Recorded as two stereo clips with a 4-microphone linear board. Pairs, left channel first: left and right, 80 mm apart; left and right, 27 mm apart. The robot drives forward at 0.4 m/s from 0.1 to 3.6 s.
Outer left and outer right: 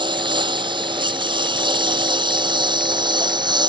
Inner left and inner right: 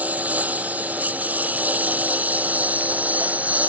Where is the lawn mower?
80° right; by 3.7 s 70° right (ahead or behind).